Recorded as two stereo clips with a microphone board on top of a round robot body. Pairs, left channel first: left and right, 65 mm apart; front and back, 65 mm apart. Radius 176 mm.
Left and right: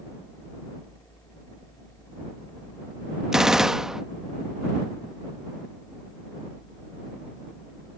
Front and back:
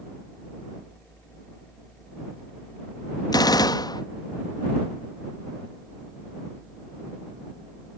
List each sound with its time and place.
3.3 s a gunshot: 5° right